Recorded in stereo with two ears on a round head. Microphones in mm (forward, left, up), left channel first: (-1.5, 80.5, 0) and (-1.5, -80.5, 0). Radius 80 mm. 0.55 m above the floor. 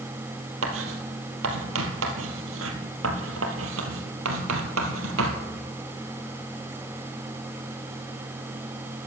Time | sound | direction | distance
0.6 | writing | 85° right | 3 m